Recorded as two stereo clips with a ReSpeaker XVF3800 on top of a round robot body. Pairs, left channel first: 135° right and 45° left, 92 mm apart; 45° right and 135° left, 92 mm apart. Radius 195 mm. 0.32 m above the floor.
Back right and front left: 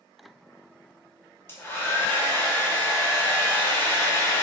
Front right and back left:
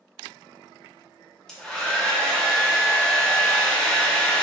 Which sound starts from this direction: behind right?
A hair dryer, at 1.5 s.